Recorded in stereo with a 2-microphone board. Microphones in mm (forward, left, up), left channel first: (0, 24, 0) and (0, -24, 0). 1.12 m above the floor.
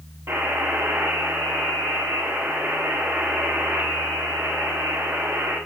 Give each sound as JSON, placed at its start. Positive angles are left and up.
{"t": 0.3, "sound": "a buzzer", "side_deg": -70, "distance_m": 8.0}